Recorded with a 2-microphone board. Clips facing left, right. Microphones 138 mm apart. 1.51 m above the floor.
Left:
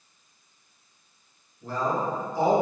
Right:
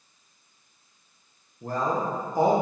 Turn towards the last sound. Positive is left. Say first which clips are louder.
# even
turn(degrees=-50)  # may be behind; listen again after turning